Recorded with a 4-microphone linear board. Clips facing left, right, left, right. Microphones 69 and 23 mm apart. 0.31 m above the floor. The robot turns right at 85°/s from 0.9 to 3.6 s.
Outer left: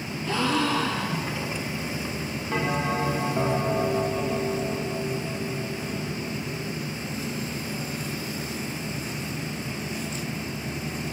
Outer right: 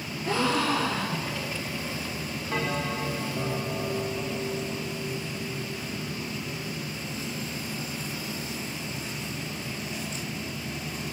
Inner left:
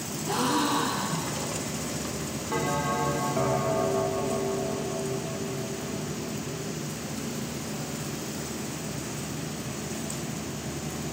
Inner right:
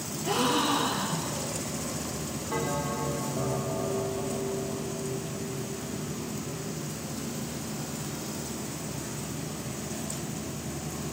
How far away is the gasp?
About 8 m.